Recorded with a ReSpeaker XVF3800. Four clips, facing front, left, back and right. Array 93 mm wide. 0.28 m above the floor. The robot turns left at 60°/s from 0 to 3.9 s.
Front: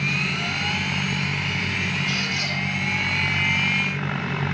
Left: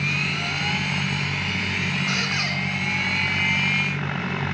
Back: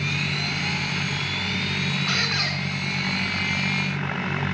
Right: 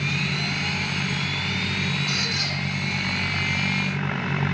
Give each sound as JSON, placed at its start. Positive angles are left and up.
{"t": 2.1, "sound": "a squeak", "azimuth_deg": 160, "distance_m": 1.7}